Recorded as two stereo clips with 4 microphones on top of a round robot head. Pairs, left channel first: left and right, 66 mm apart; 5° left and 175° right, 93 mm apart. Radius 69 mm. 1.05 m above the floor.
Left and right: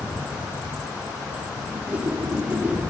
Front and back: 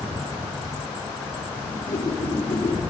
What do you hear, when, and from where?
1.7 s a whoosh: 25° right, 2 m